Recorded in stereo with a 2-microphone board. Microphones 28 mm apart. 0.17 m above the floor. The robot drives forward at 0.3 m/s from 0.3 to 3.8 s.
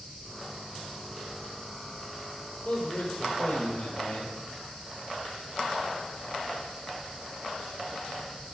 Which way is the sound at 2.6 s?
45° left (ahead or behind).